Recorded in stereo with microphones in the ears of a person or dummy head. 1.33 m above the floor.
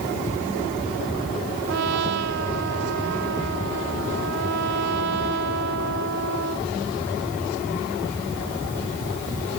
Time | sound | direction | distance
1.7 | a trumpet | 60° right (ahead or behind) | ?